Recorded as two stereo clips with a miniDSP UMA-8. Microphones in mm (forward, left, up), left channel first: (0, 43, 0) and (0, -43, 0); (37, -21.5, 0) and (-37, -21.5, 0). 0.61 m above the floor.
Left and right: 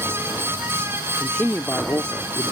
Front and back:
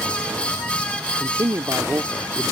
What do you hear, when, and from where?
1.2 s a man speaking: 165° left; by 2.5 s 80° left